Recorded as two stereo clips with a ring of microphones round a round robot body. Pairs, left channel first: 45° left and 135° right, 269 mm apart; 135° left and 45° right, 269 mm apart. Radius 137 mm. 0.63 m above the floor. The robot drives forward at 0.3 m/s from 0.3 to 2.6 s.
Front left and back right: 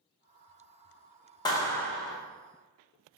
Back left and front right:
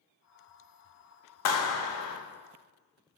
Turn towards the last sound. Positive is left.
turn(degrees=145)